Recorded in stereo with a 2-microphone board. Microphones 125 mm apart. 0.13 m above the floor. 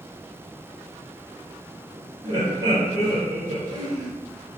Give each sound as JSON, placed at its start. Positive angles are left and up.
{"t": 2.2, "sound": "laughter", "side_deg": -35, "distance_m": 1.6}